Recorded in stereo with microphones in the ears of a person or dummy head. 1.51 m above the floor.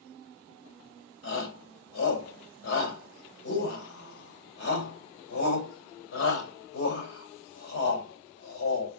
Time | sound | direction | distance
1.2 | a shout | 80° left | 6 m